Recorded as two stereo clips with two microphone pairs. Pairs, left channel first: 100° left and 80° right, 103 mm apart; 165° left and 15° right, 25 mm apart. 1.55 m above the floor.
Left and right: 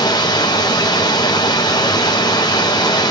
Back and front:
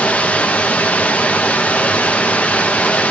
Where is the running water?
150° left, 0.7 m.